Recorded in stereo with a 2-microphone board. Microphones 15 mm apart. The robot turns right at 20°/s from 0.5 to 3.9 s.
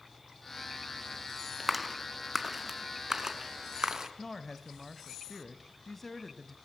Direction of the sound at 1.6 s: 10° right (ahead or behind).